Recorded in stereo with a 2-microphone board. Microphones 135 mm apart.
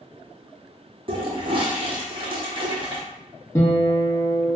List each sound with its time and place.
1.1 s a toilet flushing: 40° right (ahead or behind), 0.7 m
3.5 s a guitar: 20° left (ahead or behind), 1.0 m